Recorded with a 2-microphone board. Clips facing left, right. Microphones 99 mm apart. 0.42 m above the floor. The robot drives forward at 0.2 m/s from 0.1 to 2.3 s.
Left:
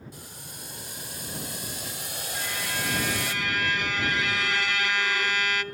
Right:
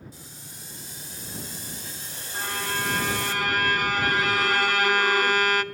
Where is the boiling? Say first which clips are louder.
Left 2 dB; 60° left (ahead or behind), 2 m; by 3.3 s 70° left (ahead or behind), 2 m.